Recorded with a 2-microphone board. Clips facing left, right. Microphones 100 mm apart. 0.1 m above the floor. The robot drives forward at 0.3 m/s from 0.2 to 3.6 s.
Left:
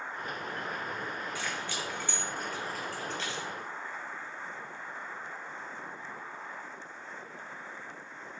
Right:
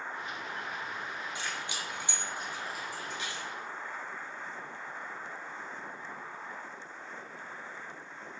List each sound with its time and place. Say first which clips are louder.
1.4 s keys jangling: left 2 dB; 20° right (ahead or behind), 0.9 m; by 3.5 s 15° right (ahead or behind), 1.3 m